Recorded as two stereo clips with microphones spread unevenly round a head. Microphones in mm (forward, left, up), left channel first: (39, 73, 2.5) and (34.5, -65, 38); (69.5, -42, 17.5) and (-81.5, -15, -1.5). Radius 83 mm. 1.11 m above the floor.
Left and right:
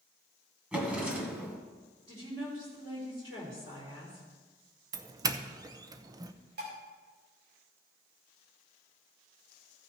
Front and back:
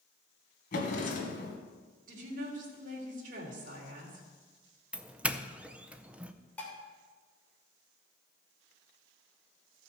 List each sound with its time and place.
0.7 s a drawer: 20° right, 2.0 m
2.1 s a woman speaking: 155° right, 3 m
4.9 s a doorbell: 145° right, 0.5 m
6.6 s dishes clattering: 90° right, 2.5 m